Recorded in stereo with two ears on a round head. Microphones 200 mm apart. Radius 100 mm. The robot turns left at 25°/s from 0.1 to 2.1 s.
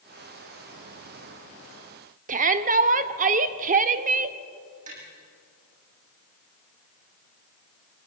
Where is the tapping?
35° right (ahead or behind), 8.5 m.